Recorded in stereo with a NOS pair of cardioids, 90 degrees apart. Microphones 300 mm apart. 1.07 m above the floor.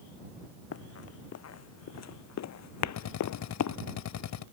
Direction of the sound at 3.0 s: 70° left.